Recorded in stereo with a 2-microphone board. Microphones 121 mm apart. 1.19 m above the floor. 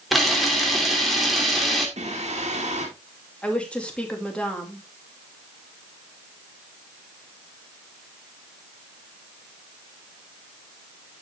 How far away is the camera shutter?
About 2.5 m.